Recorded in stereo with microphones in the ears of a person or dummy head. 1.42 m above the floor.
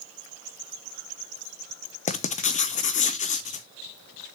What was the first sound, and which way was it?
Writing, 40° left (ahead or behind).